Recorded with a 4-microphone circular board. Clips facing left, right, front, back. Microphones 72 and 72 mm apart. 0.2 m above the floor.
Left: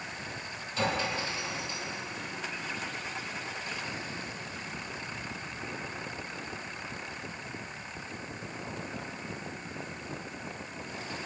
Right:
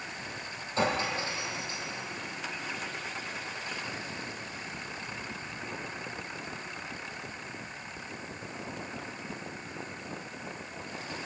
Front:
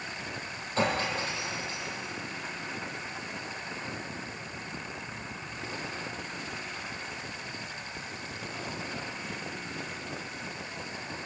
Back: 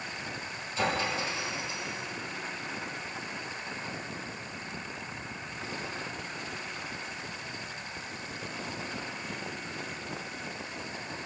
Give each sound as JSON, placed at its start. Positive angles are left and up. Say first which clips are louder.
{"t": 0.8, "sound": "a clink", "louder": "right 2 dB, front 1 dB", "azimuth_deg": -35, "distance_m": 4.5}